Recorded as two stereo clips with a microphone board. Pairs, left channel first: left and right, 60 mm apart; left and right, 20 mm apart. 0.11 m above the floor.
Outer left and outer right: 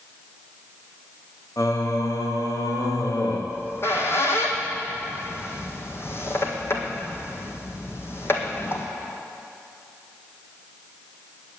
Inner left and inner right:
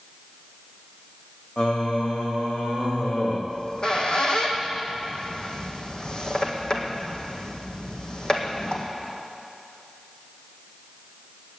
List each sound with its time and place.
1.6 s singing: 60° left (ahead or behind), 1.7 m
3.5 s a squeak: 45° left (ahead or behind), 1.9 m